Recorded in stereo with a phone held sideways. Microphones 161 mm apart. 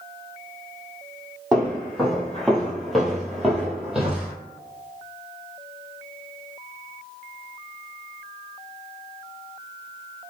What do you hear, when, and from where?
1.5 s footsteps: centre (ahead or behind), 1.8 m; by 4.3 s 5° right (ahead or behind), 1.6 m